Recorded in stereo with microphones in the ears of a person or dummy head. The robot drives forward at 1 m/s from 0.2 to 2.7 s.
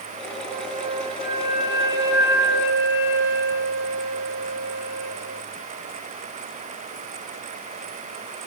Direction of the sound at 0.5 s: 35° right (ahead or behind).